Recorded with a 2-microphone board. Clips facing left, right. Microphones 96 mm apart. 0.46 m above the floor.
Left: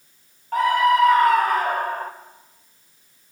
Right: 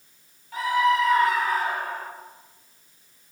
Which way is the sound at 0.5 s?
55° left (ahead or behind).